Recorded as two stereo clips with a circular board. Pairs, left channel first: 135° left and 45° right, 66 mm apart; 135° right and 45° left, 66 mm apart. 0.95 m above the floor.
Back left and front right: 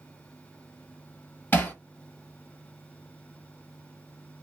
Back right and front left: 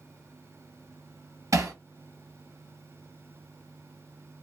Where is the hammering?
75° left, 1.4 m.